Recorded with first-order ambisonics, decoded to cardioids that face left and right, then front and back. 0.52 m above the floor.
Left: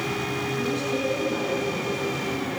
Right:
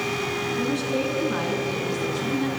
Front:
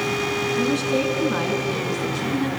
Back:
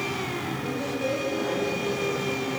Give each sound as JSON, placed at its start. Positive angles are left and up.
{"t": 0.6, "sound": "a woman speaking", "azimuth_deg": -20, "distance_m": 5.5}